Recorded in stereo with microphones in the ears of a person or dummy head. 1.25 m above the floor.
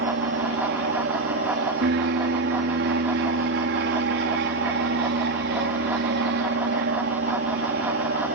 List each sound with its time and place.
0.0 s an aircraft: 60° right (ahead or behind)